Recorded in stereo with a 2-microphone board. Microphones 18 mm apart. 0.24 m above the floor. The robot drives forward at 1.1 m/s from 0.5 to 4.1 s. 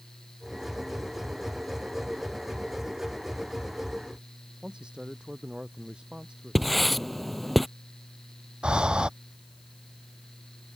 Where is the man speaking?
80° right.